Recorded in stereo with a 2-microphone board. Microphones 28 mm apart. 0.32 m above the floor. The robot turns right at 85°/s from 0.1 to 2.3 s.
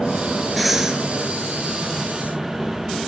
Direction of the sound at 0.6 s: 175° left.